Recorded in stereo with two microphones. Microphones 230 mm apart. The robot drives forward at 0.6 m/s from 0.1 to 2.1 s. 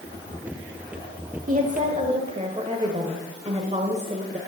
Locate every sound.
1.5 s a woman speaking: 35° right (ahead or behind), 1.1 m; by 4.4 s 30° right (ahead or behind), 1.3 m